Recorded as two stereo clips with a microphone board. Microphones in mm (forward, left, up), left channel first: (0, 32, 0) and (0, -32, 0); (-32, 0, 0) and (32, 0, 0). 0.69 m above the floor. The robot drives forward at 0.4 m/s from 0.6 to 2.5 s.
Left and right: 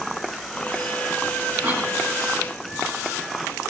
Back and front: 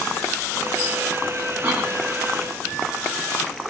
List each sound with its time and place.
1.6 s a cough: 65° right, 4.5 m; by 1.9 s 70° right, 4.5 m